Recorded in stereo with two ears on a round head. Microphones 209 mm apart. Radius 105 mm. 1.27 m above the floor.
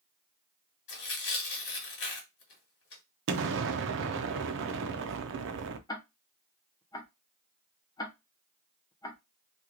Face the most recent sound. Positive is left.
turn(degrees=15)  # may be behind; listen again after turning